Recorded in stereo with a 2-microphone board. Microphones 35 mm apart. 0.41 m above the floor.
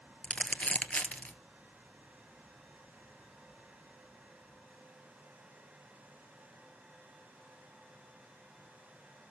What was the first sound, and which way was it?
Crumpling, 40° left (ahead or behind).